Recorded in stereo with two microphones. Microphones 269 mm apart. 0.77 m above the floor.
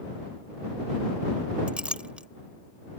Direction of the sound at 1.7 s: 5° right (ahead or behind).